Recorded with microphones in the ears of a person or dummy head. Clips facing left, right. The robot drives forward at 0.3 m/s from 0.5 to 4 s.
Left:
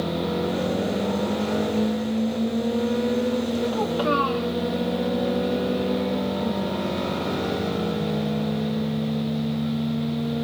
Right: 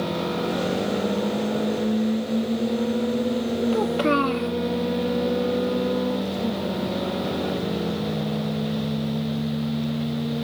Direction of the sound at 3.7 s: 35° right (ahead or behind).